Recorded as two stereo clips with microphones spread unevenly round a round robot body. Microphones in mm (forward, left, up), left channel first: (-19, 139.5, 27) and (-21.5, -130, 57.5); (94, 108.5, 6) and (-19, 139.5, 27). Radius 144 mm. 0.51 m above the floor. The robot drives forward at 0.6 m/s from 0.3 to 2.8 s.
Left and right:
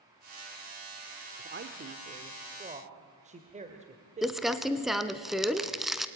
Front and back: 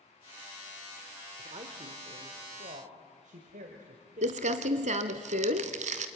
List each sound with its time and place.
1.4 s a man speaking: 140° right, 1.2 m; by 5.2 s 155° right, 1.9 m
4.2 s crumpling: straight behind, 0.9 m